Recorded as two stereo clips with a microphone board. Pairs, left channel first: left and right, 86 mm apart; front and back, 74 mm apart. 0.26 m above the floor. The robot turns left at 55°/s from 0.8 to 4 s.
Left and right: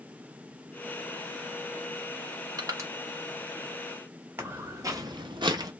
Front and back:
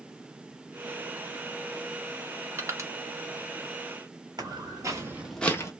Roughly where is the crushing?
Behind right.